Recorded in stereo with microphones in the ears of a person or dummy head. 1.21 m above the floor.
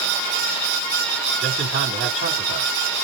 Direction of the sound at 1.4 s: 45° right (ahead or behind).